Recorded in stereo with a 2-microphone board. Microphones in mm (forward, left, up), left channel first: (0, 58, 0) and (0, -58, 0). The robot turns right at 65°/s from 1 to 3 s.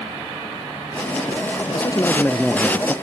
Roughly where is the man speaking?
Behind left.